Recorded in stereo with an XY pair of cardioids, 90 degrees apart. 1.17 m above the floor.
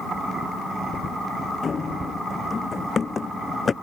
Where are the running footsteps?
40° left.